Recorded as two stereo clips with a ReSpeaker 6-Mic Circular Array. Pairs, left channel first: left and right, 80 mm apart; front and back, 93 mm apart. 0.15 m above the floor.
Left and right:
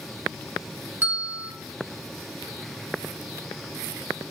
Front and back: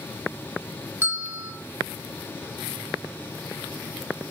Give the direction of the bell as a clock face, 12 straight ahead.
5 o'clock.